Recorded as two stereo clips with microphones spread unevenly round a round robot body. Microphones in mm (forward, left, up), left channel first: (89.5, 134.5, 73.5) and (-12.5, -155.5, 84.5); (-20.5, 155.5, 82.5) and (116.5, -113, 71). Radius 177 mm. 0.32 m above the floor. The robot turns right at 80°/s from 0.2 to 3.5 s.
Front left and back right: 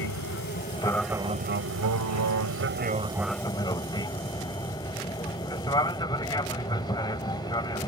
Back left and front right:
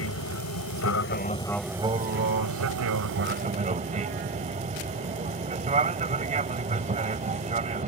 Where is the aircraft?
95° left; by 7.9 s 5° right.